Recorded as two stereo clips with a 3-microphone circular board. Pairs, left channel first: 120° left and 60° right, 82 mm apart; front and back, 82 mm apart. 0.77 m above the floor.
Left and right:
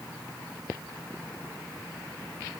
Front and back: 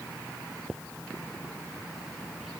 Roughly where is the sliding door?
I don't hear a sliding door.